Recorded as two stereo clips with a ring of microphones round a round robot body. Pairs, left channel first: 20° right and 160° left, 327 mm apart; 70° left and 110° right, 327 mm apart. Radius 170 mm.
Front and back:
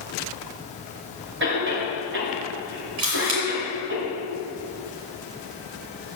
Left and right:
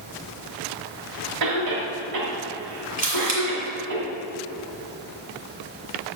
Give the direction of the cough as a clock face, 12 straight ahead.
5 o'clock.